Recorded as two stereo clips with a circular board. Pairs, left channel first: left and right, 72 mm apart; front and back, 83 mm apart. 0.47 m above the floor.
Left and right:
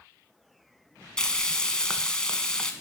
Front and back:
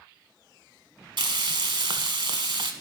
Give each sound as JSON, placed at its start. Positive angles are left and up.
{"t": 1.2, "sound": "frying", "azimuth_deg": 170, "distance_m": 0.8}